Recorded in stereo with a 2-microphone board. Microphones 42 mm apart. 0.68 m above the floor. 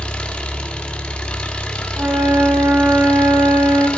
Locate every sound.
0.0 s an engine running: 25° left (ahead or behind), 1.1 m
2.0 s a flute: 55° right (ahead or behind), 1.0 m